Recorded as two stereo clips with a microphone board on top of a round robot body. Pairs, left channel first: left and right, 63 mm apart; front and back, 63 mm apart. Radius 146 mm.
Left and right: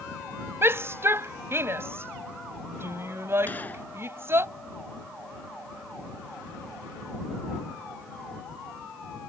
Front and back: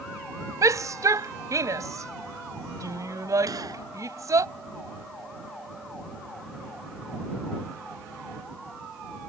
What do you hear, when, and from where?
0.6 s a shout: 140° right
3.5 s a gunshot: 155° left